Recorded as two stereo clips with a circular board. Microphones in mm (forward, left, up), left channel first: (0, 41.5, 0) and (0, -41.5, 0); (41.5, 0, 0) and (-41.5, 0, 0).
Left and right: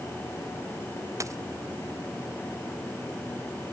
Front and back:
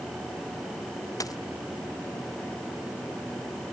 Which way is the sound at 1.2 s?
40° right.